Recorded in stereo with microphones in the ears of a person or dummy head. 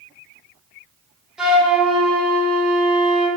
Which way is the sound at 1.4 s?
5° right (ahead or behind).